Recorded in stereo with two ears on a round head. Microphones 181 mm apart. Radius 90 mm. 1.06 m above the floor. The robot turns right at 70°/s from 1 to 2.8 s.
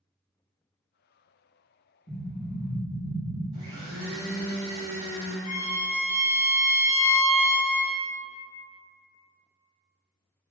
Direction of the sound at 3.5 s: 30° right (ahead or behind).